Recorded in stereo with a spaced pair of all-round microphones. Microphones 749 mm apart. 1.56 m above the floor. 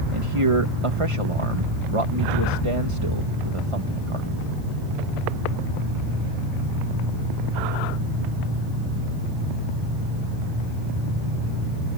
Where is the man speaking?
40° right (ahead or behind).